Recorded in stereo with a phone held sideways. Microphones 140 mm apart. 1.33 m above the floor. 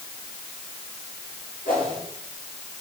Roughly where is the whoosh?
Left.